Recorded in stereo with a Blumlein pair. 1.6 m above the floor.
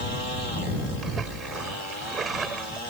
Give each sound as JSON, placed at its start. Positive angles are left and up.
{"t": 1.0, "sound": "a splash", "azimuth_deg": -20}